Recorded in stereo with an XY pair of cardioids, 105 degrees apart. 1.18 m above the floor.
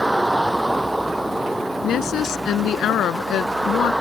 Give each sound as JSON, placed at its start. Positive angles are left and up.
{"t": 0.0, "sound": "a vehicle", "azimuth_deg": -5}
{"t": 1.8, "sound": "a woman speaking", "azimuth_deg": 70}